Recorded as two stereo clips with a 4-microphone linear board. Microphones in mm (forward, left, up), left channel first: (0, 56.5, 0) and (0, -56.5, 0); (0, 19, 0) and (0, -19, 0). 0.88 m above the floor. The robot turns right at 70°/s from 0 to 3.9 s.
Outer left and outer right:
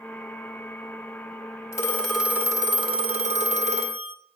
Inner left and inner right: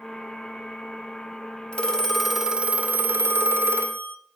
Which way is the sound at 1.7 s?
150° left.